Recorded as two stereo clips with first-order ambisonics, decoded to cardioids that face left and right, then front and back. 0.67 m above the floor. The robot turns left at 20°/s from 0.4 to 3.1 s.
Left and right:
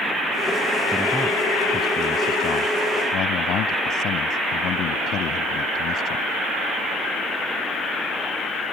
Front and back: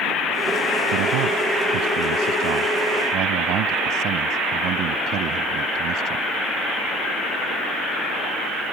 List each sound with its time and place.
0.9 s a man speaking: 175° right; by 6.2 s 140° left